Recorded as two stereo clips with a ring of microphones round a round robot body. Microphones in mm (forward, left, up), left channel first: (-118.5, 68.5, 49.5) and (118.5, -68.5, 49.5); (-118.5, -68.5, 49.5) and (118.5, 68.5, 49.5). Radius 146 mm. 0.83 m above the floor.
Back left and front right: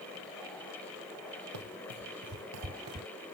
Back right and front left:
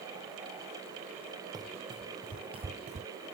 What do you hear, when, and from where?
1.5 s running footsteps: 45° right; by 3.1 s 5° right